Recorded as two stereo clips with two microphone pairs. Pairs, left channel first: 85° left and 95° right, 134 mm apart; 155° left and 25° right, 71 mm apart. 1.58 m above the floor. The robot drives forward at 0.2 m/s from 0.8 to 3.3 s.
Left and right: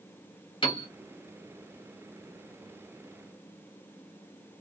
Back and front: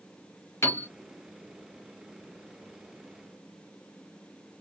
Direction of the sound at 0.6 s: 120° left.